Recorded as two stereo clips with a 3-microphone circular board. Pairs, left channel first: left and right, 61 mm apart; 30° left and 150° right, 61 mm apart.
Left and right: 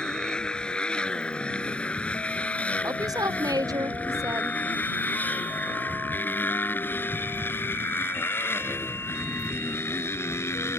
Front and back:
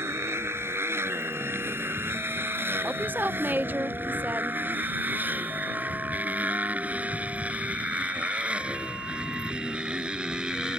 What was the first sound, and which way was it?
A motorcycle, 165° left.